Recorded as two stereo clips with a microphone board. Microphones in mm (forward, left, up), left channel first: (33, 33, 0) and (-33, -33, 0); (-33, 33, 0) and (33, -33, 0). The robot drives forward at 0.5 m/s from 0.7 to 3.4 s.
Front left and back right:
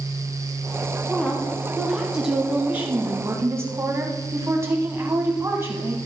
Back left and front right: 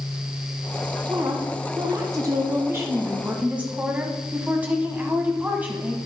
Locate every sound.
1.1 s a woman speaking: 30° right, 1.5 m; by 6.0 s 105° right, 1.2 m